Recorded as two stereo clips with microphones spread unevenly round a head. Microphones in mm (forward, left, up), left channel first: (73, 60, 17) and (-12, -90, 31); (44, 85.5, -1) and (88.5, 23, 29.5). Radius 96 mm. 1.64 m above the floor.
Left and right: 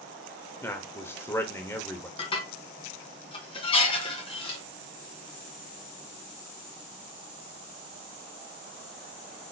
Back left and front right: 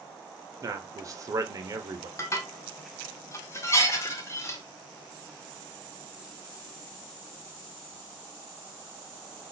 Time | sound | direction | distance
0.6 | a man speaking | 20° right | 0.8 m
2.2 | dishes clattering | 70° left | 0.7 m